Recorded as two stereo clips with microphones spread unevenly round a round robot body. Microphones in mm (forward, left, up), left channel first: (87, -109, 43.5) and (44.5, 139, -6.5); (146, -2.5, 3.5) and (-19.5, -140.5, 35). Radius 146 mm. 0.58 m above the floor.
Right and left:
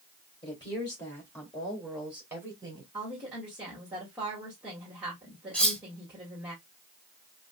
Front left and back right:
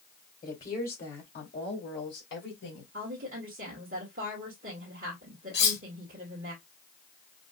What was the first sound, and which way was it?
A woman speaking, 10° right.